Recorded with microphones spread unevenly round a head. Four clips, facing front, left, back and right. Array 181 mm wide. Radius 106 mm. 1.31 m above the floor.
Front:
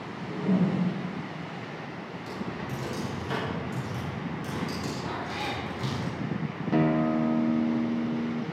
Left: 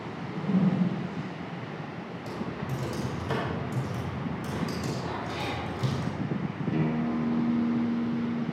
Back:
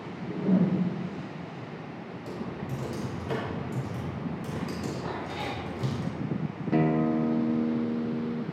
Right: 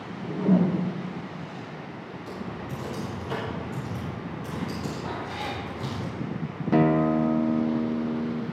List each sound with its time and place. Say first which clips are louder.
0.1 s a whoosh: right 6 dB, back 1 dB; 100° right, 1.3 m
2.3 s typing on a keyboard: left 1 dB, even; 160° left, 6 m
5.0 s a cat meowing: right 1 dB, front 1 dB; 160° right, 2.5 m
6.7 s a guitar: right 9 dB, even; 120° right, 0.5 m